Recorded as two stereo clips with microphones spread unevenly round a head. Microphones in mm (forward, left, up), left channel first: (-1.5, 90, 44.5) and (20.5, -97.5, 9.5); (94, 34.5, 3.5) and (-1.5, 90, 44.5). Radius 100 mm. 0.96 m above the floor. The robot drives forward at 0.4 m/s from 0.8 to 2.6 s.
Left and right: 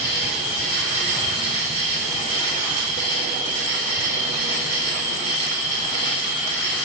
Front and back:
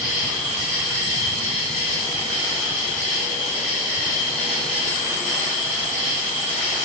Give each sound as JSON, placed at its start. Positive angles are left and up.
{"t": 0.0, "sound": "an insect", "azimuth_deg": 155, "distance_m": 1.8}